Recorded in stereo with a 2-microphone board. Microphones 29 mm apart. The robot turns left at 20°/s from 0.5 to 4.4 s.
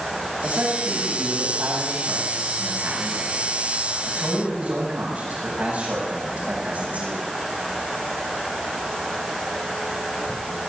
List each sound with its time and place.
0.4 s a man speaking: 50° right, 7.5 m; by 7.2 s 130° right, 7.5 m